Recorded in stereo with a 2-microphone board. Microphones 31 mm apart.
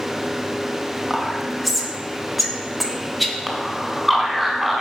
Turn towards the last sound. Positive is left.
turn(degrees=-5)  # may be behind; listen again after turning